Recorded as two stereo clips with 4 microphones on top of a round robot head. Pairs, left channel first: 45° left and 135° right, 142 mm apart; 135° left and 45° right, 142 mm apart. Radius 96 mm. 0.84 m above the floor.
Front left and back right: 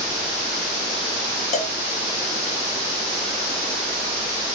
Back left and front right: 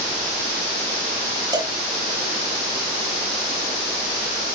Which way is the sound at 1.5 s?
15° left.